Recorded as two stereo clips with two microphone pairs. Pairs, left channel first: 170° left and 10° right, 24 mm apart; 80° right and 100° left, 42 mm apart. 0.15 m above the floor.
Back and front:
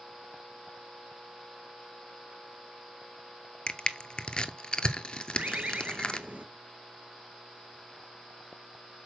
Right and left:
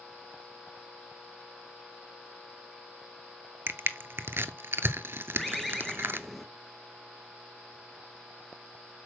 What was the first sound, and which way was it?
Crushing, 115° left.